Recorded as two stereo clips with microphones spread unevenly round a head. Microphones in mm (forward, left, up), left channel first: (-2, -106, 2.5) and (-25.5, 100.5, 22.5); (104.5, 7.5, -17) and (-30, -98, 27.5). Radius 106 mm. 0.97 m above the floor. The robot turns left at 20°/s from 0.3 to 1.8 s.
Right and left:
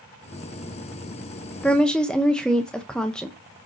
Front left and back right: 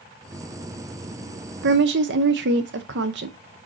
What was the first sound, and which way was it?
A woman speaking, 160° right.